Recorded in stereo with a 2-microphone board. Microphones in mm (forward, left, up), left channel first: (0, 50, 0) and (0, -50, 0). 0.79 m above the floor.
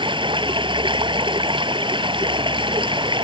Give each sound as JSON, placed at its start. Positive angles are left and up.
{"t": 0.0, "sound": "running water", "side_deg": -55}